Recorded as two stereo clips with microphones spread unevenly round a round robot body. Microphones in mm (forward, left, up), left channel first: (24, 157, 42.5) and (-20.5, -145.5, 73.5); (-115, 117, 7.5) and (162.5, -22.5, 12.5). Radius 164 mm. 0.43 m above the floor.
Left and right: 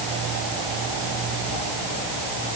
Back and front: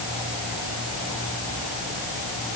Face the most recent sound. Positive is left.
No sound to turn to.